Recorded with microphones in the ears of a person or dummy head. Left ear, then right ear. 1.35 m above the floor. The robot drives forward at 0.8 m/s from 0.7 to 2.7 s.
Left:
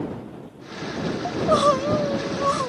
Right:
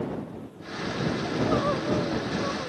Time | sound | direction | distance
1.2 | crying | 55° left (ahead or behind) | ?